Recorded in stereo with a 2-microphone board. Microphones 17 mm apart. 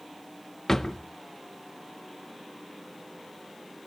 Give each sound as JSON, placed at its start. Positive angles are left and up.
{"t": 0.7, "sound": "a drawer", "side_deg": 25, "distance_m": 0.7}